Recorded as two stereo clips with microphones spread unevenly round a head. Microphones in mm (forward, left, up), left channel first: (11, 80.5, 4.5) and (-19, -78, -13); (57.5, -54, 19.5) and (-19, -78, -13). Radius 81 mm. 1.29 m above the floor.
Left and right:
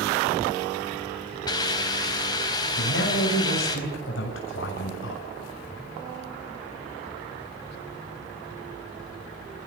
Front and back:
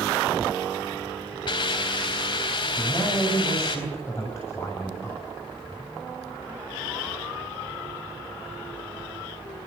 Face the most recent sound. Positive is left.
turn(degrees=90)